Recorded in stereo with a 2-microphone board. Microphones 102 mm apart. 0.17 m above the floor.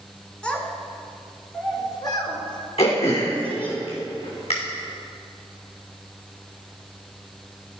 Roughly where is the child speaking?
Centre.